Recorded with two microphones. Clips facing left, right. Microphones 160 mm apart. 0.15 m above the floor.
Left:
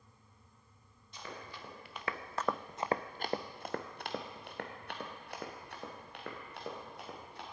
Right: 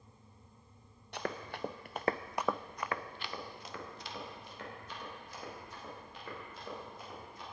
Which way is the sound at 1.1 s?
75° right (ahead or behind).